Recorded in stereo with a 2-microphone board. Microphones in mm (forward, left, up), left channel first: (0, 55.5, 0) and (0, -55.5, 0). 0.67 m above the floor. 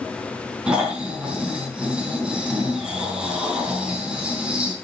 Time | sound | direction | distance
0.7 | snoring | 10° right (ahead or behind) | 4 m